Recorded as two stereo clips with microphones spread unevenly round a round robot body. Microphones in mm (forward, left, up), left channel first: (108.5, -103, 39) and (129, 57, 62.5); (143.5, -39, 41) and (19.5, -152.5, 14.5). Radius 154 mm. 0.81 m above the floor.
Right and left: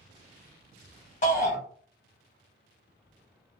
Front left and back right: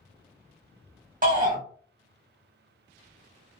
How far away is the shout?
About 1.6 m.